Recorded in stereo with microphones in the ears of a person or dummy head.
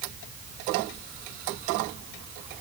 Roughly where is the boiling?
I don't hear boiling.